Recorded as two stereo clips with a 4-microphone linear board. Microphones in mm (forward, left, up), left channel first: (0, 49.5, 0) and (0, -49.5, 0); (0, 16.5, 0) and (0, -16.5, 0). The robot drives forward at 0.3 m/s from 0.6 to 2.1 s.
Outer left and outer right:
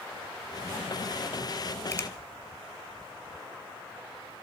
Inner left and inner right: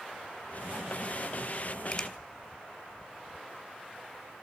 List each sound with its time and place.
1.9 s a finger snap: 25° left (ahead or behind), 1.2 m